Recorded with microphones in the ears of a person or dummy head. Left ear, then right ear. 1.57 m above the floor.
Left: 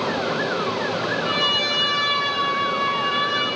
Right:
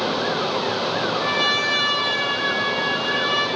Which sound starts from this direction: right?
A trumpet, at 1.2 s.